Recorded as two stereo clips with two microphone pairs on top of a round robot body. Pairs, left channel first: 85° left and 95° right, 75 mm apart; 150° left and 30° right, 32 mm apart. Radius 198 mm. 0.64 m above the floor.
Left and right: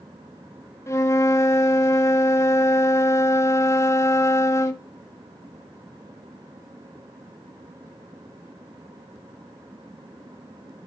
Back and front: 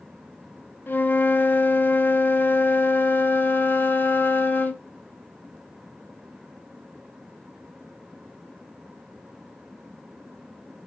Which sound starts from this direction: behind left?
A flute, at 0.9 s.